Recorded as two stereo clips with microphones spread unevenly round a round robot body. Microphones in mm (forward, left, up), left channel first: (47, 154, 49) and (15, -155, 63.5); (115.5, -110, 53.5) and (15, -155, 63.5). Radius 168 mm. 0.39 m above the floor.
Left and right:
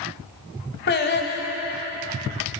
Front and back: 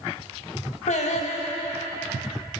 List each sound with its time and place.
0.9 s singing: 25° left, 0.9 m